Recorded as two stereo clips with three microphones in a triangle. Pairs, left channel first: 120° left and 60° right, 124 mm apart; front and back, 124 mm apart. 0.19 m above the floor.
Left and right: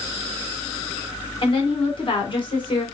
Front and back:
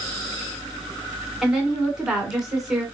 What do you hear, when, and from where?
1.4 s a woman speaking: 95° left, 2 m